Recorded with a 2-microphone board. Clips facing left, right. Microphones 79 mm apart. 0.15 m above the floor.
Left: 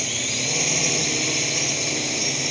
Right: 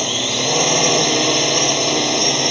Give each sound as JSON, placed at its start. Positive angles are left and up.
{"t": 0.0, "sound": "a drone", "side_deg": -65}